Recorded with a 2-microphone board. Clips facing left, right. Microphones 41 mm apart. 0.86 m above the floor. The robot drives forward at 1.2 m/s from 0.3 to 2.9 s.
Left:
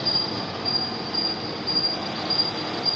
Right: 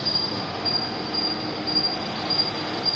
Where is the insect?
15° left (ahead or behind), 1.7 m; by 3.0 s 5° left (ahead or behind), 4.5 m.